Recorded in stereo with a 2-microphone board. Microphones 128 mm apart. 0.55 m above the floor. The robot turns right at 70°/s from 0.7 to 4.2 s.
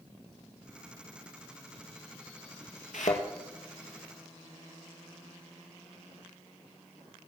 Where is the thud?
75° left (ahead or behind), 2 m; by 3.2 s 80° left, 2 m.